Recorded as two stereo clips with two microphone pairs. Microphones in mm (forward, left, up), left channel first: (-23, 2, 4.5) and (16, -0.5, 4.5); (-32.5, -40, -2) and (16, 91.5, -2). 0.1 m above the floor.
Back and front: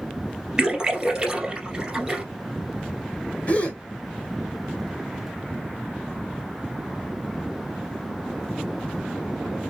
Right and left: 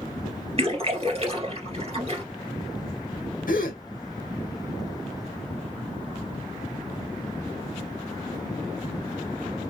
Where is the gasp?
130° right, 0.8 m.